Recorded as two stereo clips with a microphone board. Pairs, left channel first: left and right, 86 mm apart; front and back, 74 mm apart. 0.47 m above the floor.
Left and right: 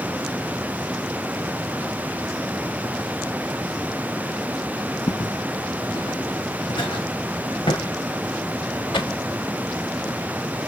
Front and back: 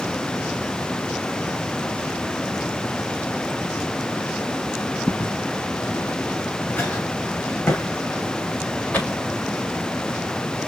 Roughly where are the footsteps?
Left.